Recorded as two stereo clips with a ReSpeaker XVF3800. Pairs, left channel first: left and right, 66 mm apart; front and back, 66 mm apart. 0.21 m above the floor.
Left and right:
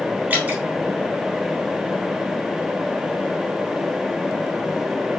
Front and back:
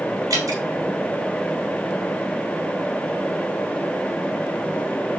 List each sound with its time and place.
0.3 s dripping: 155° right, 1.7 m